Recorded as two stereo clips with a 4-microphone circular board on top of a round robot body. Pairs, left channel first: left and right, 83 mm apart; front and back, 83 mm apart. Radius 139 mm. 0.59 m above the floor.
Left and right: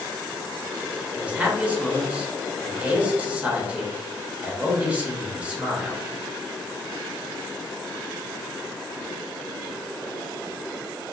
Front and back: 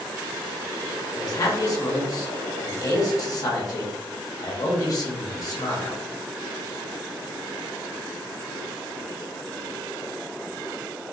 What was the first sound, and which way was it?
A man speaking, 20° right.